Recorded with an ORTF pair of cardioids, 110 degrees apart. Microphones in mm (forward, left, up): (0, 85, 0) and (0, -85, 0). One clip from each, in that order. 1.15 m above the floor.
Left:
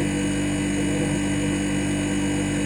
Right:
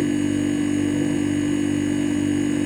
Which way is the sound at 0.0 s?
30° left.